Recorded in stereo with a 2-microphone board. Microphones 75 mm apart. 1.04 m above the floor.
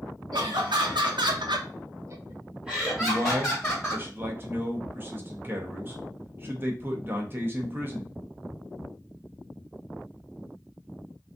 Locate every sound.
0.3 s laughter: 70° right (ahead or behind), 1.0 m; by 4.0 s 20° left (ahead or behind), 1.2 m
3.0 s a man speaking: 30° right (ahead or behind), 0.6 m